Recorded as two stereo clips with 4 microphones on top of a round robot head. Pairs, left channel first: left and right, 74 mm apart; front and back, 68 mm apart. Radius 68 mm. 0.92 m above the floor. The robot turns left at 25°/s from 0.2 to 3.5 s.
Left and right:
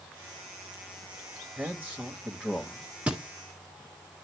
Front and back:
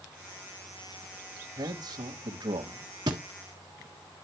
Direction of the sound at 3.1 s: 160° right.